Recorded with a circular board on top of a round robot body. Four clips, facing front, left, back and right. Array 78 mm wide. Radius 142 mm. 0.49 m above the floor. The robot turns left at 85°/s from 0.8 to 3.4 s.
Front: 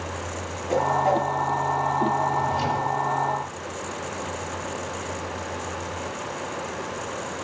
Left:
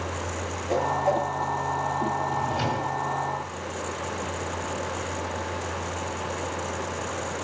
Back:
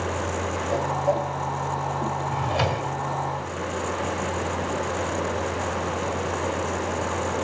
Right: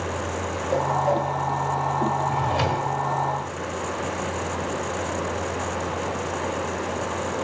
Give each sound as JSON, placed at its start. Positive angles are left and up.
{"t": 0.7, "sound": "a whoosh", "azimuth_deg": 30, "distance_m": 5.0}
{"t": 2.3, "sound": "a drawer", "azimuth_deg": -110, "distance_m": 1.3}